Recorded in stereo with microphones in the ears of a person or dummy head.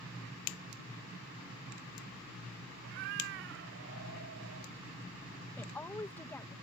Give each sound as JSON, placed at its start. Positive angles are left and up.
{"t": 2.8, "sound": "a cat meowing", "side_deg": -55}
{"t": 5.6, "sound": "a woman speaking", "side_deg": 10}